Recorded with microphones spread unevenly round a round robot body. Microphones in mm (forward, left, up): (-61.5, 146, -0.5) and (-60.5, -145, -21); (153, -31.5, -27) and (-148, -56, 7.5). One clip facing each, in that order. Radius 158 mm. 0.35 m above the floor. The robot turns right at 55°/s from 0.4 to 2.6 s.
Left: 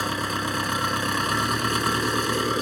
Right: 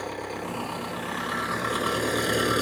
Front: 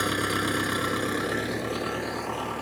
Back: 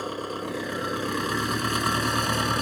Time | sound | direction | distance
0.0 | an engine running | 60° left | ?